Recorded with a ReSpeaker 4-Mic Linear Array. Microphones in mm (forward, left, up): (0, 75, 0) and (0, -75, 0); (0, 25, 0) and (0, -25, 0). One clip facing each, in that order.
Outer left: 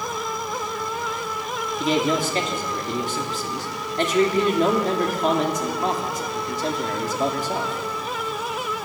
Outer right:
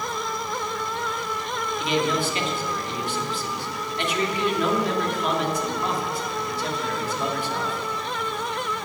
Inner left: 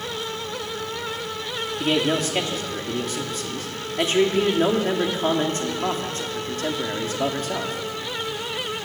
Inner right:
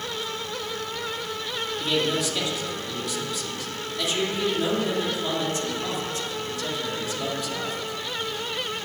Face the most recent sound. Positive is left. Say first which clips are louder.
# outer left 3 dB, inner left 4 dB
turn(degrees=40)  # may be behind; listen again after turning